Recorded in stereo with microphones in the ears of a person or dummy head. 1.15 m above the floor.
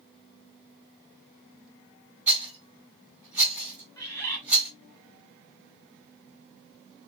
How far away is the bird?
About 1.7 m.